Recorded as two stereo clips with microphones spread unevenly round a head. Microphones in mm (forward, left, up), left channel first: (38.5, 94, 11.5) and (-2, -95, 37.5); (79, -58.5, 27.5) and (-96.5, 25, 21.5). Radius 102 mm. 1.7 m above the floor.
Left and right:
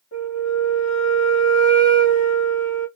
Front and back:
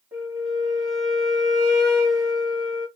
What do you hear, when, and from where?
0.1 s a flute: 90° left, 1.2 m